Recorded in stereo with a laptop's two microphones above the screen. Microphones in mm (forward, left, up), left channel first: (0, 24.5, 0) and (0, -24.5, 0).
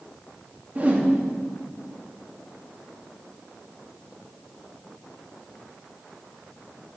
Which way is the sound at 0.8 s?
30° right (ahead or behind).